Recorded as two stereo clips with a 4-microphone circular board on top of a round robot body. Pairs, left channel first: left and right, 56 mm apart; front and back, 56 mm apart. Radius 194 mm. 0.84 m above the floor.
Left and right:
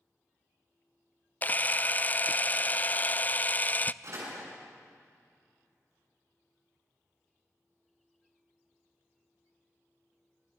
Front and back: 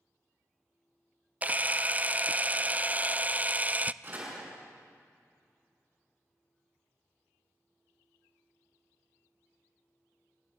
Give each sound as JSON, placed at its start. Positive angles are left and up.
{"t": 1.4, "sound": "a camera shutter", "azimuth_deg": 135, "distance_m": 0.7}
{"t": 4.0, "sound": "a door slam", "azimuth_deg": -125, "distance_m": 7.5}